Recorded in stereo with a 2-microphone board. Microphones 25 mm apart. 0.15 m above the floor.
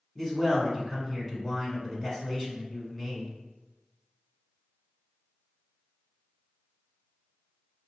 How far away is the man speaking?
About 1.5 m.